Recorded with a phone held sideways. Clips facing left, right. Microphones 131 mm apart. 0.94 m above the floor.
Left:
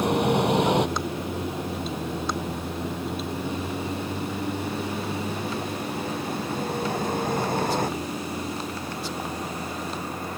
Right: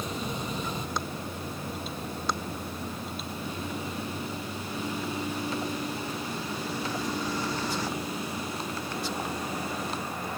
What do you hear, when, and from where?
0.0 s a vehicle: 70° left (ahead or behind); by 10.4 s 45° left (ahead or behind)